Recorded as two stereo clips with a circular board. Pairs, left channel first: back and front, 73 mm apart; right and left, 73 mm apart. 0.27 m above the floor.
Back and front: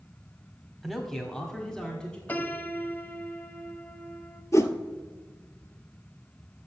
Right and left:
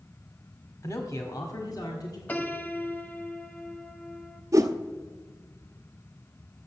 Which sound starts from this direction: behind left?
A whoosh, at 4.5 s.